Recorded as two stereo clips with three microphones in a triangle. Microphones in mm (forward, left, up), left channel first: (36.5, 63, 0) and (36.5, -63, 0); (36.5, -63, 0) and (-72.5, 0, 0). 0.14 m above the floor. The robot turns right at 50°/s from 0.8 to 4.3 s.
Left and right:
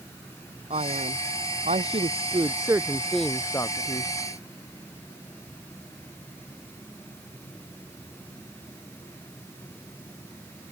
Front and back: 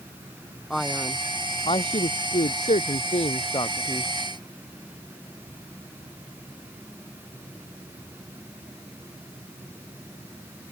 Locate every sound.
0.7 s a man speaking: 115° right; by 4.1 s 50° left